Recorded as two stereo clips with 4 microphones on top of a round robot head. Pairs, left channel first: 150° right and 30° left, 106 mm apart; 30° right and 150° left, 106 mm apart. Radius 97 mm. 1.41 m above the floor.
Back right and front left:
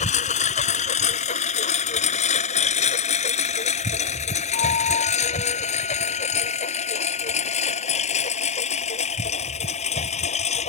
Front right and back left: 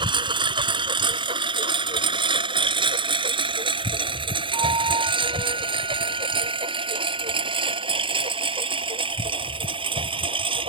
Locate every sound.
0.0 s a lawn mower: 165° right; by 10.7 s 170° right
4.5 s a flute: 165° right